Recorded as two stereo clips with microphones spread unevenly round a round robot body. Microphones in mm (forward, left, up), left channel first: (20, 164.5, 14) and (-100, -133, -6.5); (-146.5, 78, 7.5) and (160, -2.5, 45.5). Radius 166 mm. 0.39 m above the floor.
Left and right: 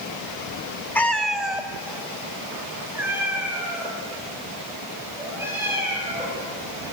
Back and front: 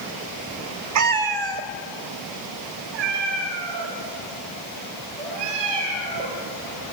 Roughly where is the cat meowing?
Ahead.